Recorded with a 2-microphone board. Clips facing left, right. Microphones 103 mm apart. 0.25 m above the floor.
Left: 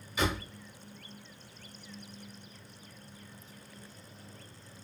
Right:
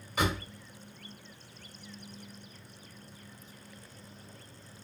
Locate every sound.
0.2 s a door slam: 60° right (ahead or behind), 1.6 m